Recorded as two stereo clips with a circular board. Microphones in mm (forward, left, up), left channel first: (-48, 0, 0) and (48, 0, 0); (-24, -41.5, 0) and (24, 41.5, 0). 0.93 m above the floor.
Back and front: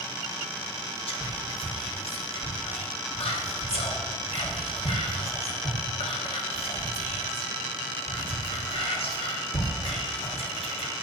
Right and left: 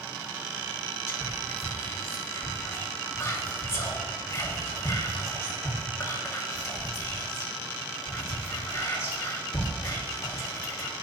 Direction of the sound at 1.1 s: Straight behind.